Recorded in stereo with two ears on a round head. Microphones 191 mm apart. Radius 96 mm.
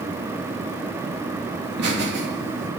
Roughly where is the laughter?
Right.